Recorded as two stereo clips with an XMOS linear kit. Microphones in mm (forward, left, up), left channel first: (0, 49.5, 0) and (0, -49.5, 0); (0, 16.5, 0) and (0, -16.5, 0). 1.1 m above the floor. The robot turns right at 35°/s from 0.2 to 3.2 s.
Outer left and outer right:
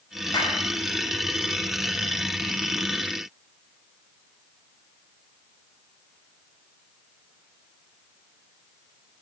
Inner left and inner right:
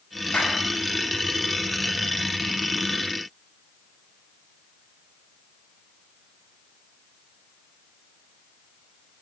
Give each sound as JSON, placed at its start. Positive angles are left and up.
{"t": 0.3, "sound": "a clap", "side_deg": 50, "distance_m": 4.0}